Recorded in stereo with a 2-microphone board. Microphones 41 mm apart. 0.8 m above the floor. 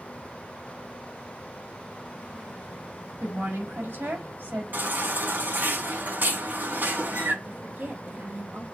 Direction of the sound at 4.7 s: 55° right (ahead or behind).